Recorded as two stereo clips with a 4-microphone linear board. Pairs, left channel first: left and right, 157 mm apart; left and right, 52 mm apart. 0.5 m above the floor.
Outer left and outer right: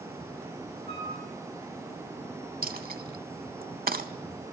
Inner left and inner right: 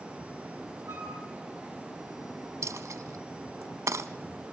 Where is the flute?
80° right, 6.5 m.